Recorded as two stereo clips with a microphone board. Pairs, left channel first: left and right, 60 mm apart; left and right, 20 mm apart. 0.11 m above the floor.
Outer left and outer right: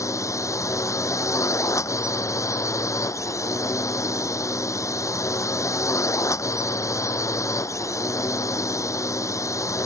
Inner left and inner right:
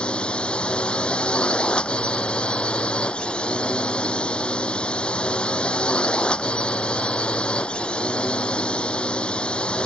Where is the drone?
60° left (ahead or behind).